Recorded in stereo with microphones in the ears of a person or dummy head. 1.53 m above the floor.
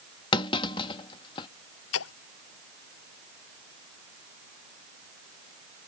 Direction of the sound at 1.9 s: 80° left.